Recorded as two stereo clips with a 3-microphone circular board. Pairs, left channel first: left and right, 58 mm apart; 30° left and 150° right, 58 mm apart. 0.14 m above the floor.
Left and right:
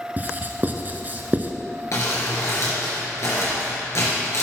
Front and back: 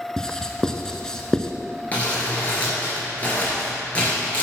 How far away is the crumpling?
About 3 m.